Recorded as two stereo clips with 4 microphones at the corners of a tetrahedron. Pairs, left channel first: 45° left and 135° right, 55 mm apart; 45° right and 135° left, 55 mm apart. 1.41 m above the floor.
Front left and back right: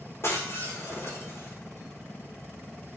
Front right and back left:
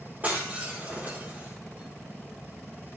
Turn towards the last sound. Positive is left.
turn(degrees=80)